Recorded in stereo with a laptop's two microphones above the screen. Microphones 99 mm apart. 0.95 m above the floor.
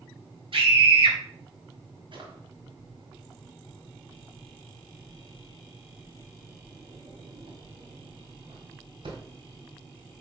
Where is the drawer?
55° right (ahead or behind), 1.7 m.